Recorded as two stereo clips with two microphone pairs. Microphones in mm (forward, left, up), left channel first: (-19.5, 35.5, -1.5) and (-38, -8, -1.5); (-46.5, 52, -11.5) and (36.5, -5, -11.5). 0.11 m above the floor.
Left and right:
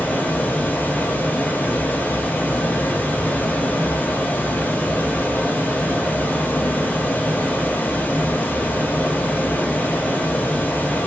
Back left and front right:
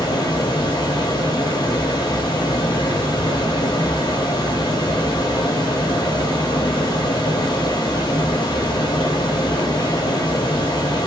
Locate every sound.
0.0 s running water: 110° left, 0.8 m